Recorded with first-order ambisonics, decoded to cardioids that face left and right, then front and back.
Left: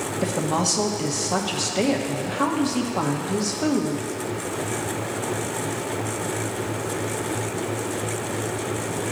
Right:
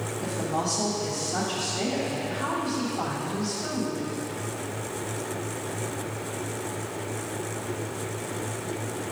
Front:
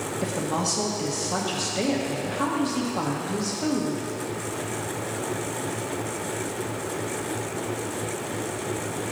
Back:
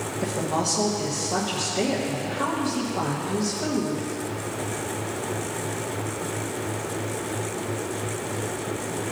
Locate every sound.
0.2 s a woman speaking: 85° left, 1.1 m